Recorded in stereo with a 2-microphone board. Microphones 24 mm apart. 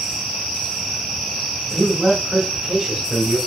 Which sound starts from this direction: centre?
A man speaking, at 1.7 s.